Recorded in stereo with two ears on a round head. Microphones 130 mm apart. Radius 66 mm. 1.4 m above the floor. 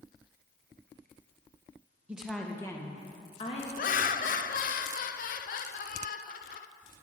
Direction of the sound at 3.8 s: 60° left (ahead or behind).